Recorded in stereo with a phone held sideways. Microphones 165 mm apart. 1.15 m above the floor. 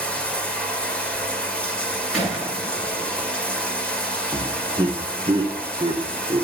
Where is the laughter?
30° right (ahead or behind), 1.0 m.